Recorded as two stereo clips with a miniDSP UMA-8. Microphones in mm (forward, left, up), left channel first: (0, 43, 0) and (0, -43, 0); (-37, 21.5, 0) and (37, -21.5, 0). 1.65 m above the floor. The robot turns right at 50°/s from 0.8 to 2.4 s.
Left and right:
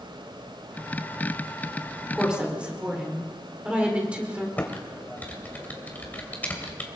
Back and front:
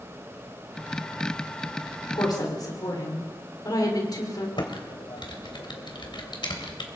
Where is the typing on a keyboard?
160° left, 3 m.